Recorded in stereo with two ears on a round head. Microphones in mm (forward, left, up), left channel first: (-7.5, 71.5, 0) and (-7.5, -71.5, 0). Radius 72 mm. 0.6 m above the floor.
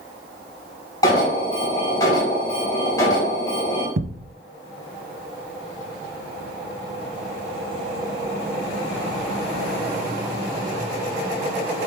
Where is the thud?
60° right (ahead or behind), 0.7 m.